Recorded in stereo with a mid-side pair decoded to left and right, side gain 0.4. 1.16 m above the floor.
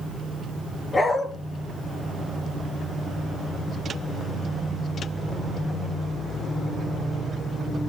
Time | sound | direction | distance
0.9 | a dog barking | 25° left | 6 m